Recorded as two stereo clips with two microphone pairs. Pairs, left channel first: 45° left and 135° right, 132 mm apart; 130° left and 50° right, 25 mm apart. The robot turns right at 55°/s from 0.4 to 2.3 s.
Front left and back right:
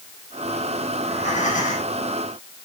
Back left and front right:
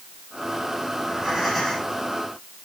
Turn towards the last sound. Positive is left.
turn(degrees=80)